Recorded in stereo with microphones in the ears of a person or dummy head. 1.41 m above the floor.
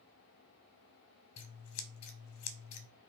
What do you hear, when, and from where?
1.4 s scissors: 70° left (ahead or behind), 0.6 m